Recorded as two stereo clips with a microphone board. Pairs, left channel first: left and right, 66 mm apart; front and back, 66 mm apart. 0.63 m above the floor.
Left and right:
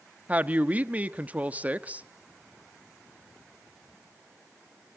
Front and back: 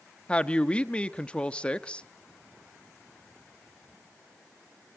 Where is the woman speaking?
55° right, 0.8 m.